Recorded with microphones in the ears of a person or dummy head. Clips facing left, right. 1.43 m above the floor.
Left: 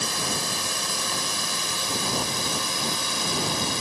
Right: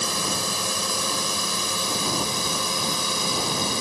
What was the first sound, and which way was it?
A drone, 80° right.